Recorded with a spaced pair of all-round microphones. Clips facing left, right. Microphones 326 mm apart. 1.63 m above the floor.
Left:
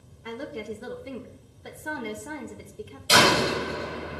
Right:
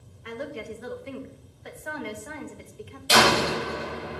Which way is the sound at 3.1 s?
10° left (ahead or behind).